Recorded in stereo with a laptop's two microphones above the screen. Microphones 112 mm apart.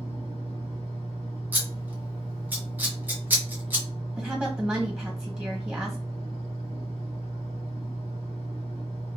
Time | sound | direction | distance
0.0 | a fan | 65° right (ahead or behind) | 1.0 m
1.5 | scissors | 15° right (ahead or behind) | 0.8 m
4.2 | a woman speaking | 15° right (ahead or behind) | 1.3 m